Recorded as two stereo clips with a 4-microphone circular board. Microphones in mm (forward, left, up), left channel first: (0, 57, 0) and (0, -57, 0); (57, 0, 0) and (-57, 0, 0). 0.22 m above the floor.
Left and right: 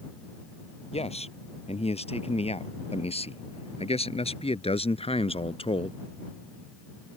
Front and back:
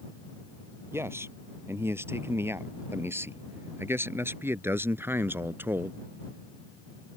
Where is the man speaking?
115° left; by 5.9 s 110° left.